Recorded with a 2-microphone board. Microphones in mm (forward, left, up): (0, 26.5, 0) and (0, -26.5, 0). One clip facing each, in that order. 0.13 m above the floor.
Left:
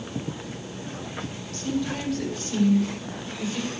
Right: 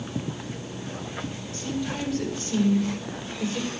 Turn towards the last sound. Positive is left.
turn(degrees=-30)  # may be behind; listen again after turning